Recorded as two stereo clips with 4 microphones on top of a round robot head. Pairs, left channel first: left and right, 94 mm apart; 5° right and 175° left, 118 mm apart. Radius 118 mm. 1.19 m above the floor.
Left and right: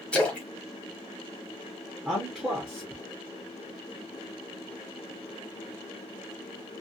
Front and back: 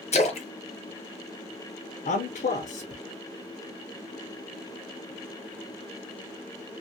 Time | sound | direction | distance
0.1 | a splash | 10° left | 0.8 m
2.0 | a man speaking | 5° right | 0.6 m